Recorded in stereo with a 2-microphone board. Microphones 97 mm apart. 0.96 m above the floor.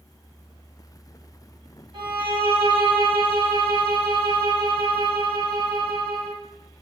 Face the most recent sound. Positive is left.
turn(degrees=-65)  # may be behind; listen again after turning